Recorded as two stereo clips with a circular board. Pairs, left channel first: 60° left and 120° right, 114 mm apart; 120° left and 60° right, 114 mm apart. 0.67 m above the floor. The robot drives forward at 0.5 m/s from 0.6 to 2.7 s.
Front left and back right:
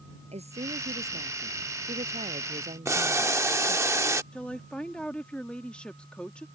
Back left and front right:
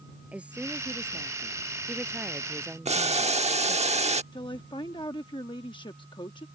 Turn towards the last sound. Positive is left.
turn(degrees=135)